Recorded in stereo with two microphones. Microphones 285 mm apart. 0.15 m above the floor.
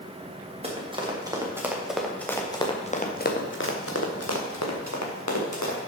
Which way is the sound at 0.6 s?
20° right (ahead or behind).